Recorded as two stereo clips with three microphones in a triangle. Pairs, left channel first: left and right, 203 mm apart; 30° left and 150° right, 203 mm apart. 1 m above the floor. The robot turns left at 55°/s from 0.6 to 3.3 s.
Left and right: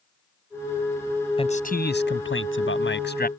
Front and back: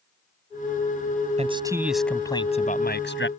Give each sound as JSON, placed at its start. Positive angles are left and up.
{"t": 1.4, "sound": "a man speaking", "azimuth_deg": 155}